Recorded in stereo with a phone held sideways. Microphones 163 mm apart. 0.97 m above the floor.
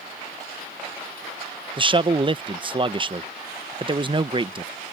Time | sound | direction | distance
1.8 | a man speaking | 30° right (ahead or behind) | ?